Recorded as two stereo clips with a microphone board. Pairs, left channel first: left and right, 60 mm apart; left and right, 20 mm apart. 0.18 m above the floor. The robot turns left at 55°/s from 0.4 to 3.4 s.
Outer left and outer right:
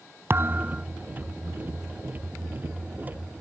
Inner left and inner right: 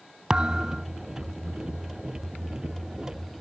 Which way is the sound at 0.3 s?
40° right (ahead or behind).